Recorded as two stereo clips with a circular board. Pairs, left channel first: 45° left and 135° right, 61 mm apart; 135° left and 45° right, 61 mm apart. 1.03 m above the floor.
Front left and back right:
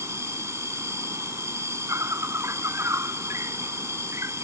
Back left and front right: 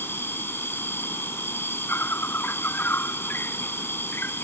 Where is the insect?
175° right.